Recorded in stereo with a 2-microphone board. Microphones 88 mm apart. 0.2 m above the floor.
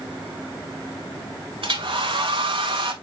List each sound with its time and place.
1.6 s a hair dryer: 65° right (ahead or behind), 0.7 m